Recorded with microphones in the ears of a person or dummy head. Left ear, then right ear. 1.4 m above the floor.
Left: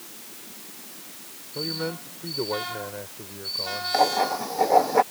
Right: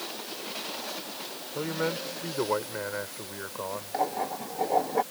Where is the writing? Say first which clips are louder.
Left 8 dB; 40° left (ahead or behind).